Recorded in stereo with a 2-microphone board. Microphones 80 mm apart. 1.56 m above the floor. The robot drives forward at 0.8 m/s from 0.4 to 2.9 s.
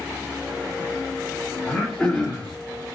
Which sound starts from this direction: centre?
Throat clearing, at 1.6 s.